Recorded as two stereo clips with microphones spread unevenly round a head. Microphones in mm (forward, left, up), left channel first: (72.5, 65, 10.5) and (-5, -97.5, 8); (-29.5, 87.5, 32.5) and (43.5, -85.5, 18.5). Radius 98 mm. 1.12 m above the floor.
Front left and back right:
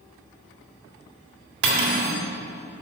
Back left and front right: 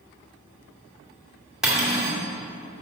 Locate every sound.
1.6 s cutlery clinking: 155° right, 1.9 m